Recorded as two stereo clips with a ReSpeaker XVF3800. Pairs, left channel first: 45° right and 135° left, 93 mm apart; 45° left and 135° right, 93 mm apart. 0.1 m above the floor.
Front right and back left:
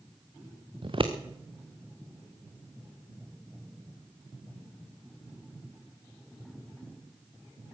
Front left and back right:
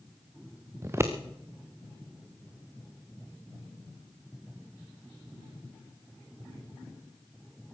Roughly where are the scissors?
Behind.